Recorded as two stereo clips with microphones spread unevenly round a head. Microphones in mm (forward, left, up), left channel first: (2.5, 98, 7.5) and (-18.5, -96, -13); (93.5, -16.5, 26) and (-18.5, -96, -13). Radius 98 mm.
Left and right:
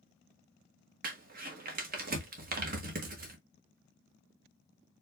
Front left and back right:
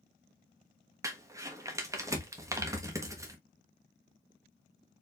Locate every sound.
1.0 s crumpling: 70° right, 1.2 m